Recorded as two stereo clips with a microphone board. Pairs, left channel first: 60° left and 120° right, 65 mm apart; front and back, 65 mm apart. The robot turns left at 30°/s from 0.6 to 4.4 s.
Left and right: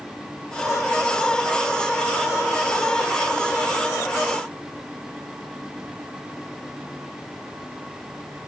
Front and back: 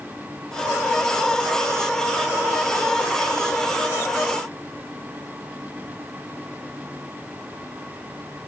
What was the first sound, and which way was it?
Only background noise.